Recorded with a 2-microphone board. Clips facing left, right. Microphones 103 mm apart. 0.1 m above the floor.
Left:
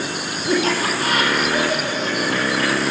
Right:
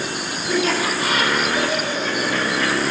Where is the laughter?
45° left (ahead or behind), 3.5 m; by 2.9 s 65° left (ahead or behind), 4.5 m.